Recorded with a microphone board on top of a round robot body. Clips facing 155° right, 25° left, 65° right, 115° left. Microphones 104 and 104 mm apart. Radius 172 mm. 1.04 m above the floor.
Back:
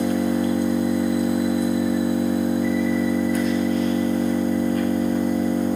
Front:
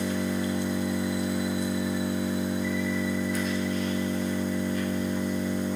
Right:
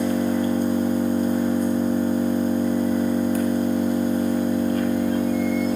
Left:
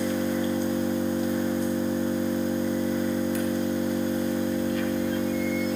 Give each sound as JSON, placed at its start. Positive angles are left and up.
{"t": 0.0, "sound": "an engine running", "azimuth_deg": -115, "distance_m": 1.9}